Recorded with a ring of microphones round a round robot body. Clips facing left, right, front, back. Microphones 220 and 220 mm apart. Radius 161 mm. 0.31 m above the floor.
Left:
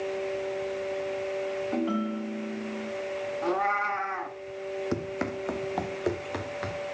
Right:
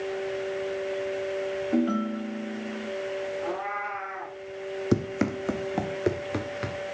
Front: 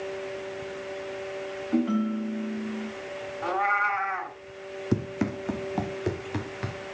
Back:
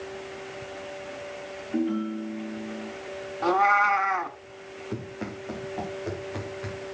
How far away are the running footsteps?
About 1.2 m.